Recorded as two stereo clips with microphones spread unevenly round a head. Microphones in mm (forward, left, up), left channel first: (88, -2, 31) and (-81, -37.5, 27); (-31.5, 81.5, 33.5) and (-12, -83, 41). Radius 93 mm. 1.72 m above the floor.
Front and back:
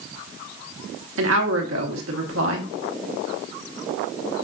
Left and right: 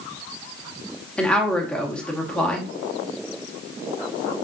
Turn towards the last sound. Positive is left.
turn(degrees=180)